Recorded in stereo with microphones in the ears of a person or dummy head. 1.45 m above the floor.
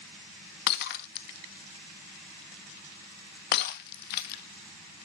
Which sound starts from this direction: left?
Breaking glass, at 0.7 s.